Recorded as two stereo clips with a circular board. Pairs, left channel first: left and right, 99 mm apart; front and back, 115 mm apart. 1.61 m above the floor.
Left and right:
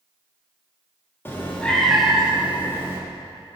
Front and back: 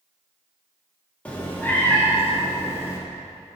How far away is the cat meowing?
About 1.1 m.